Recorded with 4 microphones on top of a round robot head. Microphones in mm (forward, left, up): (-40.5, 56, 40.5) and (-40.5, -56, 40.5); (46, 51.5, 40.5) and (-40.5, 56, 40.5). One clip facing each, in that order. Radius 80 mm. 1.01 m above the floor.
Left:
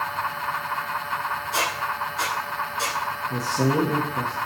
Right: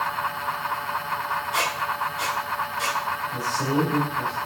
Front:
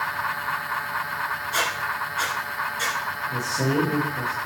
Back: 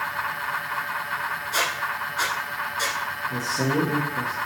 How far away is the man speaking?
About 1.6 m.